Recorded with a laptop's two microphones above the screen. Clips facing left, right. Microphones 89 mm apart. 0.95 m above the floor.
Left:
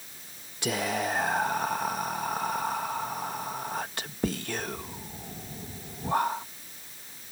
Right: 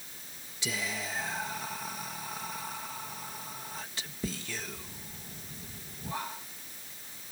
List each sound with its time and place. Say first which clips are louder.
0.6 s whispering: left 8 dB; 55° left (ahead or behind)